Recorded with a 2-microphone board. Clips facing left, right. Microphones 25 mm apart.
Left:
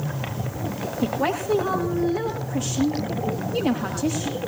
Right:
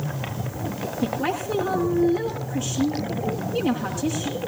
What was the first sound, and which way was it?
A woman speaking, 65° left (ahead or behind).